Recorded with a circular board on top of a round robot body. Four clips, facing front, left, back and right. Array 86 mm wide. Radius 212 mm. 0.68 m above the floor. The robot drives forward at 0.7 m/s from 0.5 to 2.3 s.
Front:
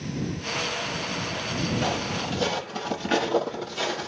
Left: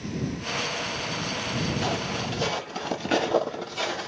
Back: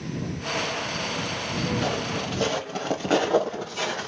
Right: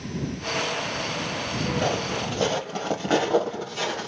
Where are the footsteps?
80° right, 0.9 m; by 4.1 s 150° right, 1.7 m.